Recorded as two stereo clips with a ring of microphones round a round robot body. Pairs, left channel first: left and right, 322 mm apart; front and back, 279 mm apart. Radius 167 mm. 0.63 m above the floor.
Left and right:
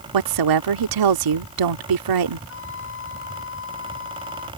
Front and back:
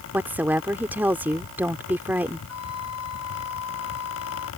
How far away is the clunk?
No clunk in this recording.